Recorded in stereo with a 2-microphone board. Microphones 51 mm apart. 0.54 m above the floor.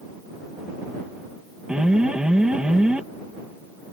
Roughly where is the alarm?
Right.